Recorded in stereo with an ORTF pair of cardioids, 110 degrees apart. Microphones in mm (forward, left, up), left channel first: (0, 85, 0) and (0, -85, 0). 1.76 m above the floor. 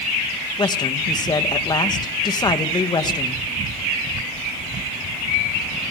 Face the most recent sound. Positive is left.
turn(degrees=25)